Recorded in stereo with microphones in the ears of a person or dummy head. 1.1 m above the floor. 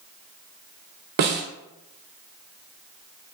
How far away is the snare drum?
About 0.6 m.